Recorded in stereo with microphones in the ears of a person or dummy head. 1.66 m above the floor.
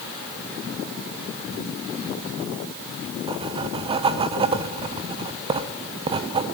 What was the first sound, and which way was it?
Writing, 25° right (ahead or behind).